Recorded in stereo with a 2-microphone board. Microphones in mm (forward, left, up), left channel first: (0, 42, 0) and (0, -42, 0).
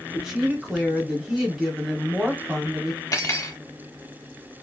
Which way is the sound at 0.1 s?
5° right (ahead or behind).